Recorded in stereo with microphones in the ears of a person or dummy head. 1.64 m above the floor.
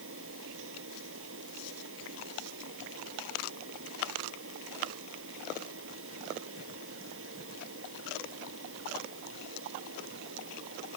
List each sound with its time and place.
0.0 s a fan: 85° right